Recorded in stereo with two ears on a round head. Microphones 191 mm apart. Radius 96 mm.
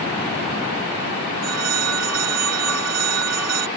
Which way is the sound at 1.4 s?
85° right.